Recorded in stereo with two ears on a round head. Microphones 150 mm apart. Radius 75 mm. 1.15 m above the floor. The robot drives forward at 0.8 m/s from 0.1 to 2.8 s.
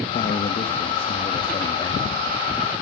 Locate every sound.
0.1 s a man speaking: 45° left (ahead or behind), 2.0 m; by 2.3 s 25° left (ahead or behind), 3.5 m